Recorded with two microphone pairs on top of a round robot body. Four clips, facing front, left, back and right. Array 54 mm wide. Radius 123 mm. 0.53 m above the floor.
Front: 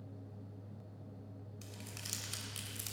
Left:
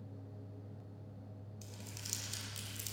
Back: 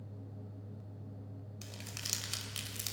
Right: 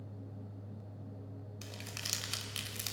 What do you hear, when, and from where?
1.6 s crumpling: 100° right, 3 m